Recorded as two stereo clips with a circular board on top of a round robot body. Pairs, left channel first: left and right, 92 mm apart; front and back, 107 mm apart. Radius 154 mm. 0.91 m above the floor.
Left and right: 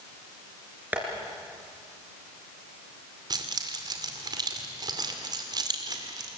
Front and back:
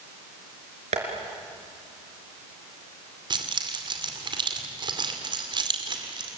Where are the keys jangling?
135° right, 2.5 m.